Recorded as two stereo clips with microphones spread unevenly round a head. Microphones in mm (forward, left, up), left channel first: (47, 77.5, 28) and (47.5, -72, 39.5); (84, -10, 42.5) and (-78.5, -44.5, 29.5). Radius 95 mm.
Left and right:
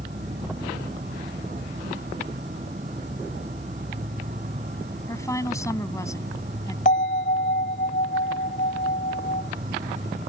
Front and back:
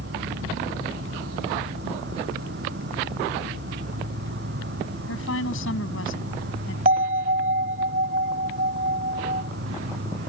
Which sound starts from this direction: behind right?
An insect, at 0.0 s.